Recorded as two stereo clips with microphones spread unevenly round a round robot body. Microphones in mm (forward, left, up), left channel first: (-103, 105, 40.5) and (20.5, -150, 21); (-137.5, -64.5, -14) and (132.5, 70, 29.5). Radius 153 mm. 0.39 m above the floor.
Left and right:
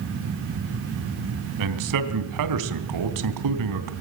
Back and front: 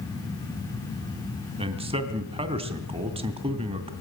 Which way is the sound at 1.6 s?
50° right.